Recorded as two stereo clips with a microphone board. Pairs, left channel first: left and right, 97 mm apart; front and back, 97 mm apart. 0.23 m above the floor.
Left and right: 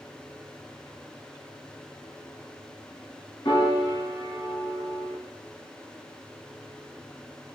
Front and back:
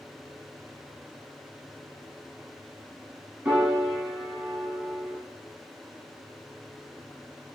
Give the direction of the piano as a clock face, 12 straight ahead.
9 o'clock.